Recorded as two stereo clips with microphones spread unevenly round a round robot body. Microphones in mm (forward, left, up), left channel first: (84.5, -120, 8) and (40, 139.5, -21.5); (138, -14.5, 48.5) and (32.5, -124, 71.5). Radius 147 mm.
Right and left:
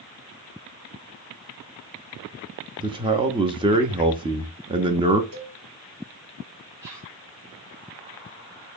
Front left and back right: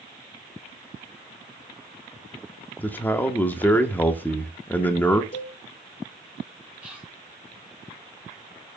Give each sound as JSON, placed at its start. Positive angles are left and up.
{"t": 2.8, "sound": "a man speaking", "azimuth_deg": 85, "distance_m": 0.5}
{"t": 5.3, "sound": "a cowbell", "azimuth_deg": 95, "distance_m": 2.0}
{"t": 6.8, "sound": "whispering", "azimuth_deg": 140, "distance_m": 0.9}